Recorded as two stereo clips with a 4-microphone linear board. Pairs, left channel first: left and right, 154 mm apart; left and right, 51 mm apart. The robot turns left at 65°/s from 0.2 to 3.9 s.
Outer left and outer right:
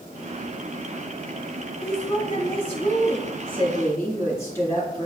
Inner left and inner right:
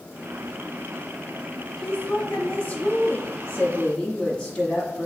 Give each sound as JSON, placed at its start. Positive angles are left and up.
{"t": 1.8, "sound": "a woman speaking", "azimuth_deg": 165, "distance_m": 1.5}